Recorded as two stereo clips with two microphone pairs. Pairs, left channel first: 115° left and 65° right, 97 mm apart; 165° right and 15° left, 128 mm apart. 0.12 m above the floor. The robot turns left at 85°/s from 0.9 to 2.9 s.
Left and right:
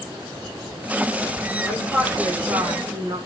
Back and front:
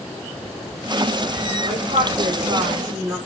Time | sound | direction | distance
1.7 | a woman speaking | 55° left | 3.5 m